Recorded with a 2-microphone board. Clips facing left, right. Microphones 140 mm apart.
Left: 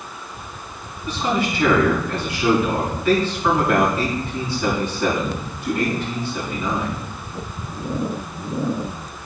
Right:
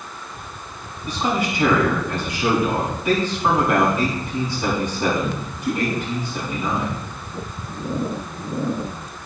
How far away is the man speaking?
About 4 m.